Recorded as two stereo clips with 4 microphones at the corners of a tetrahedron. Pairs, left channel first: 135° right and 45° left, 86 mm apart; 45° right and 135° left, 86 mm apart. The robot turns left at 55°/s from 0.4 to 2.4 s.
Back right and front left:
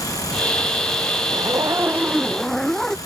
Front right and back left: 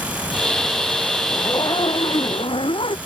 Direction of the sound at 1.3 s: 10° left.